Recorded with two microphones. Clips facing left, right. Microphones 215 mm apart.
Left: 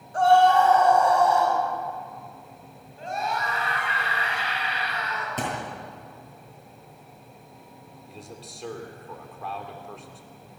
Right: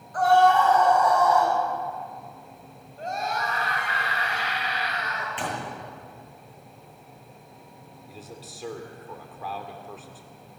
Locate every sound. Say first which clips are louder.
0.1 s a scream: left 1 dB; 30° left (ahead or behind), 6.5 m
3.0 s a scream: even; 45° right (ahead or behind), 7 m
5.4 s a thud: left 2 dB; 45° left (ahead or behind), 7.5 m
8.1 s a man speaking: even; centre (ahead or behind), 2.5 m